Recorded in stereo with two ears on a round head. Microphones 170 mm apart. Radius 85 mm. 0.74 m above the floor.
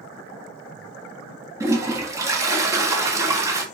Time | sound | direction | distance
1.6 | a toilet flushing | 15° right (ahead or behind) | 1.3 m